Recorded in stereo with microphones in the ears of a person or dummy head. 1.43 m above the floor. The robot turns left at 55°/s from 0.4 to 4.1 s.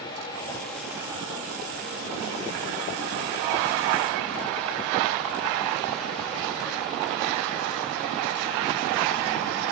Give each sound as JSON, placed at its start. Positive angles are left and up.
{"t": 0.0, "sound": "running water", "azimuth_deg": 25, "distance_m": 1.6}